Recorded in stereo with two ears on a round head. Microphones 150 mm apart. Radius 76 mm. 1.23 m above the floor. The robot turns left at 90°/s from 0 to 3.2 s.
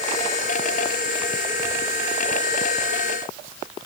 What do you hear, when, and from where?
Only background noise.